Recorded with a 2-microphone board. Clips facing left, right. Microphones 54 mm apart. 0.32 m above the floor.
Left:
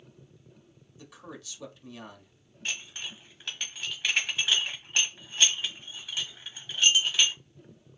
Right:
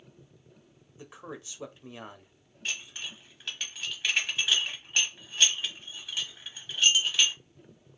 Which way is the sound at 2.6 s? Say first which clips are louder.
Even; centre (ahead or behind).